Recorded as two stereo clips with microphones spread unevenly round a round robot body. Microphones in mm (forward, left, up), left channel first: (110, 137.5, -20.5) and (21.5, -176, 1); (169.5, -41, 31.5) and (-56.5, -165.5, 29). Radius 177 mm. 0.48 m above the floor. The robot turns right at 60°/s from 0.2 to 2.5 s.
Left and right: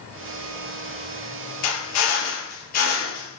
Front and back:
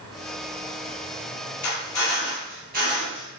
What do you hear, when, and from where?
1.6 s a drill: 90° left, 3.5 m; by 3.3 s 140° left, 3.5 m